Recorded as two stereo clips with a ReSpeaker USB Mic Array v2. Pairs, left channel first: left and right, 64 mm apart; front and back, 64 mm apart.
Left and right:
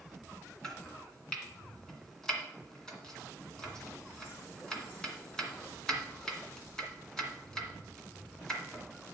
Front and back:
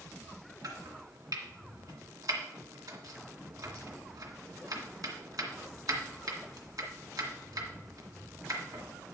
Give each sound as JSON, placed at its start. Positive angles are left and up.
{"t": 0.6, "sound": "chopping", "azimuth_deg": 170, "distance_m": 2.0}